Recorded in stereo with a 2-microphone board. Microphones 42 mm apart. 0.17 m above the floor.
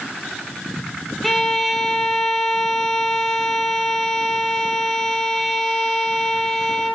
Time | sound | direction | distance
1.2 | a violin | centre (ahead or behind) | 3 m